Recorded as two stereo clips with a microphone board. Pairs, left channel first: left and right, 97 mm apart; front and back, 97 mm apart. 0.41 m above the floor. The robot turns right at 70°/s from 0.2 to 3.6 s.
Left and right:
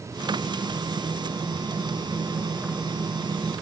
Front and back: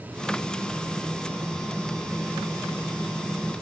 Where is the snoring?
I don't hear snoring.